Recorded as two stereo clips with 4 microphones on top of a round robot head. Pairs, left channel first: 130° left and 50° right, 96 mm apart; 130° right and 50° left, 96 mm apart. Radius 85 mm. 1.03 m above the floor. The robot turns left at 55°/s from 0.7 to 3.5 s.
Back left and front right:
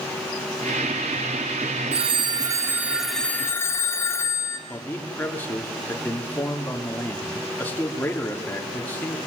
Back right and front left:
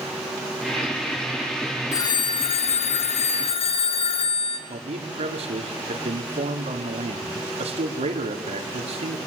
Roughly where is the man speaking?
Ahead left.